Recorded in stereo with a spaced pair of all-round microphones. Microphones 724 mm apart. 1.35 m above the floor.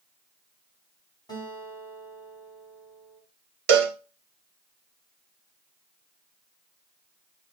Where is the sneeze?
I don't hear a sneeze.